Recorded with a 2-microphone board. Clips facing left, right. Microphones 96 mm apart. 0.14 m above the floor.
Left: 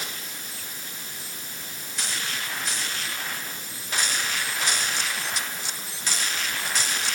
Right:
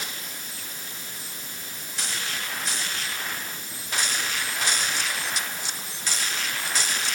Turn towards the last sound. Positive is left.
No sound to turn to.